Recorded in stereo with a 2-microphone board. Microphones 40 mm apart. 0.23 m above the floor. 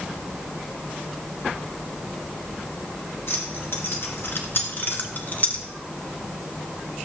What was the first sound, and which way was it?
Keys jangling, 75° left (ahead or behind).